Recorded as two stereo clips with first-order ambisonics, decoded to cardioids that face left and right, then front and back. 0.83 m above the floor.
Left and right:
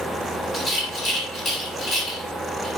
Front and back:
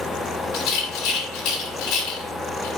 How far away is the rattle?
About 2.5 m.